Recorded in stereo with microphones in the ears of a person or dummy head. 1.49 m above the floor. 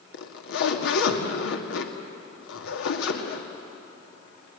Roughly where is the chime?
No chime in this recording.